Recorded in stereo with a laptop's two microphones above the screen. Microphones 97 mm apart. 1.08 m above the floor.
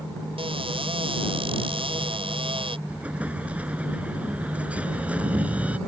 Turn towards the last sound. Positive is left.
turn(degrees=-15)  # may be behind; listen again after turning